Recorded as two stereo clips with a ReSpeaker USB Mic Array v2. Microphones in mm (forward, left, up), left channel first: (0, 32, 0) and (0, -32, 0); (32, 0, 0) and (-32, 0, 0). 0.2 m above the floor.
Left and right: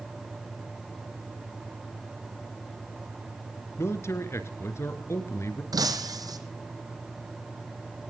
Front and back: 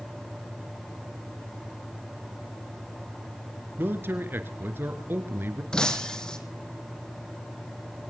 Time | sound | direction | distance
3.8 | a man speaking | 130° left | 2.5 m
5.7 | breaking glass | 80° right | 2.5 m